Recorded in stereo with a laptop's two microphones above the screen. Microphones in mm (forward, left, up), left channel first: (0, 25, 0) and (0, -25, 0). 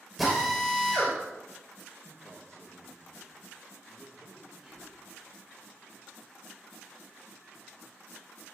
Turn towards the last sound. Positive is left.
turn(degrees=-20)  # may be behind; listen again after turning